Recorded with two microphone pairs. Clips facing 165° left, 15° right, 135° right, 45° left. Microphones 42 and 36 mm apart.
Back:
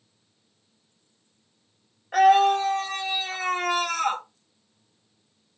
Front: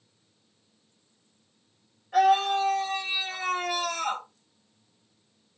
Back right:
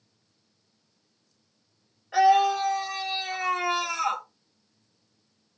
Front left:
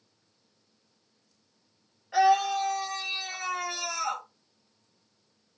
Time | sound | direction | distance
2.1 | a scream | 145° left | 2.5 m